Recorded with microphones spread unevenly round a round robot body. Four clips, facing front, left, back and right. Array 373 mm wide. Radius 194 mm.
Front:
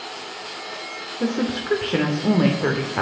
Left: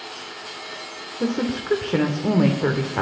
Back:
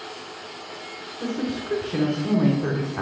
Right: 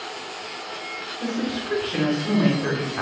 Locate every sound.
1.2 s a woman speaking: 95° left, 1.8 m